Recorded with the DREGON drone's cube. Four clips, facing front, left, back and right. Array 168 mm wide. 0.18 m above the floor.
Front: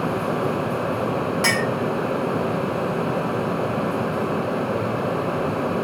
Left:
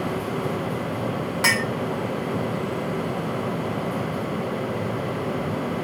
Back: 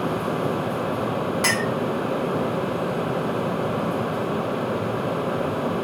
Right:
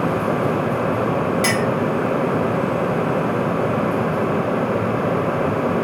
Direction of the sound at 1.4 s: 80° left.